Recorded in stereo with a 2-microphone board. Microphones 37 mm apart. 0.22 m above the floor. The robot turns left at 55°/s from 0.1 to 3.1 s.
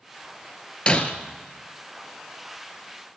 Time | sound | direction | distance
0.9 | breaking glass | 30° left (ahead or behind) | 0.9 m